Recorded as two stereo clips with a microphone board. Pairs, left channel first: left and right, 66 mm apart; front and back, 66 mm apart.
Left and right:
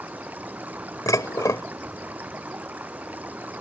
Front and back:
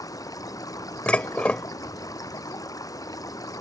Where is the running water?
25° right.